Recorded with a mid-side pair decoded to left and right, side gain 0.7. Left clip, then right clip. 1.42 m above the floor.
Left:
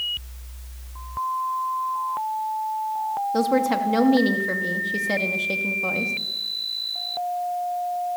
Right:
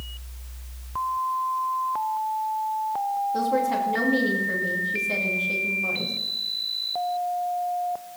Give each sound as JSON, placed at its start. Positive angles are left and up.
{"t": 3.3, "sound": "a woman speaking", "azimuth_deg": 35, "distance_m": 2.5}